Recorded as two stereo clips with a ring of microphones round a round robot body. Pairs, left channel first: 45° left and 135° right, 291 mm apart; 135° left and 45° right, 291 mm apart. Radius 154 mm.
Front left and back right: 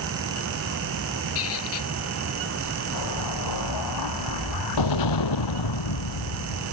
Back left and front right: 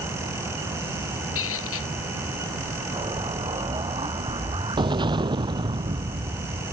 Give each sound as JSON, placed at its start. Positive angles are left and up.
{"t": 1.4, "sound": "a squeak", "azimuth_deg": 85}
{"t": 2.9, "sound": "an explosion", "azimuth_deg": 30}